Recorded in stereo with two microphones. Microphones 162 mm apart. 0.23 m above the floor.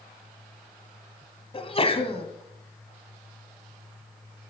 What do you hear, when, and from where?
1.5 s a sneeze: 35° left (ahead or behind), 1.6 m